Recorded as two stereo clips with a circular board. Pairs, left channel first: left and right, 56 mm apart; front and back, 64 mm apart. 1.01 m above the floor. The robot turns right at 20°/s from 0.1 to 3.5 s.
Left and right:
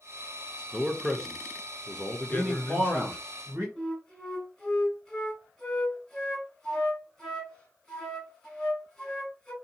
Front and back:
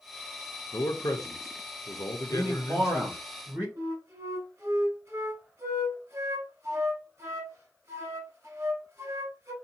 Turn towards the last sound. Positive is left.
turn(degrees=165)